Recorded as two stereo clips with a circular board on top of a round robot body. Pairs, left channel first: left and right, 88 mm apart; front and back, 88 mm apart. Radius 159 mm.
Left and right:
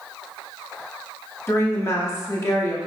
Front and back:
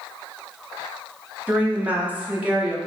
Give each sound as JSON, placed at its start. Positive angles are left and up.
{"t": 1.5, "sound": "a woman speaking", "azimuth_deg": 120, "distance_m": 1.3}